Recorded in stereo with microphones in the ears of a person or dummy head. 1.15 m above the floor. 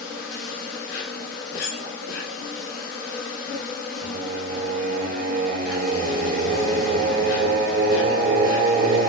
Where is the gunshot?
No gunshot in this recording.